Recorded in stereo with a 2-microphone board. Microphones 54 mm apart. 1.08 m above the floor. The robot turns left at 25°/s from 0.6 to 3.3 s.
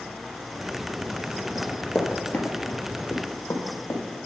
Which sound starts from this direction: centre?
Running footsteps, at 1.6 s.